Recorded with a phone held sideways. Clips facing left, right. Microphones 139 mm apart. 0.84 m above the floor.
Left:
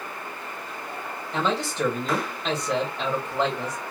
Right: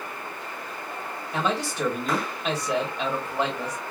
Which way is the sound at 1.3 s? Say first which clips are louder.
Left 1 dB; 5° right (ahead or behind).